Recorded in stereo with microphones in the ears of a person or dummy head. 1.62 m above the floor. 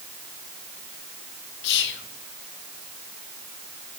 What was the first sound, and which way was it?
Whispering, 75° left (ahead or behind).